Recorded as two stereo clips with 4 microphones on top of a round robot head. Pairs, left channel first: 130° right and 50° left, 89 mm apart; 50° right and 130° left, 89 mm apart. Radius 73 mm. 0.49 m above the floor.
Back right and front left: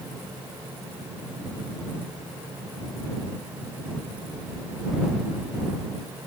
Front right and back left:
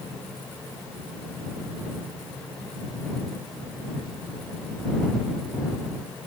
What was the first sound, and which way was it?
Only background noise.